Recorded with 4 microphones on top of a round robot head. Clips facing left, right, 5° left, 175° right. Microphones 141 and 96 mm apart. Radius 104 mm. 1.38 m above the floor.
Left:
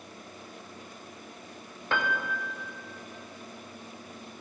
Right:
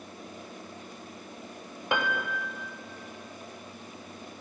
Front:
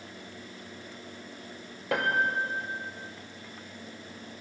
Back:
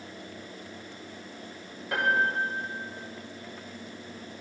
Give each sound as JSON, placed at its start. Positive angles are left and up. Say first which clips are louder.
{"t": 1.9, "sound": "a piano", "louder": "right 1 dB, back 1 dB", "azimuth_deg": -15, "distance_m": 0.5}